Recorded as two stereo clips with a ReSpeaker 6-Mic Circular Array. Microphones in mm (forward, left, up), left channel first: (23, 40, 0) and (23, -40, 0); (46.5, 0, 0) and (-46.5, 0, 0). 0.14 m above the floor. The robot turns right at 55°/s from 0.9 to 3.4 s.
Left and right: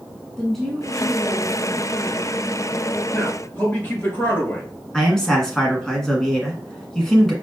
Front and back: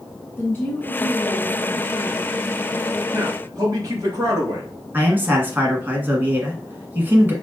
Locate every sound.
0.4 s a woman speaking: 5° left, 1.2 m; by 2.7 s 105° left, 1.2 m
3.1 s a man speaking: 125° left, 3 m; by 4.7 s 140° left, 3 m
4.9 s a man speaking: 160° left, 1.2 m